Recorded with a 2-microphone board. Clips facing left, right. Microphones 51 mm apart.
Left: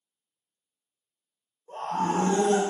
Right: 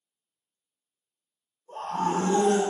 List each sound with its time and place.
1.7 s a scream: 45° left (ahead or behind), 1.9 m